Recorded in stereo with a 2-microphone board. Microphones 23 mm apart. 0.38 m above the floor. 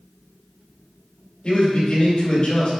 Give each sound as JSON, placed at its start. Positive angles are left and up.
{"t": 1.4, "sound": "a man speaking", "side_deg": 45, "distance_m": 1.9}